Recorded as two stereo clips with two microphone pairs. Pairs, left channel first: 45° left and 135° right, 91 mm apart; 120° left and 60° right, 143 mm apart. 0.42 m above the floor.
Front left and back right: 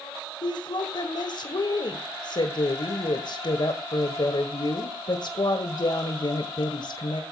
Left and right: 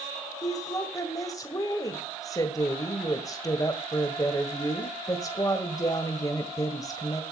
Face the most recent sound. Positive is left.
turn(degrees=60)